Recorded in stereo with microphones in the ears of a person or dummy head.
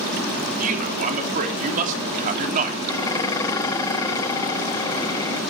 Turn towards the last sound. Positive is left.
turn(degrees=15)  # may be behind; listen again after turning